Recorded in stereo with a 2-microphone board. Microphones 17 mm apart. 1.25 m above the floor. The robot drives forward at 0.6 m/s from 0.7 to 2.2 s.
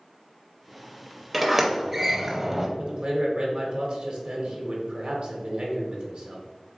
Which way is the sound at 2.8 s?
60° right (ahead or behind).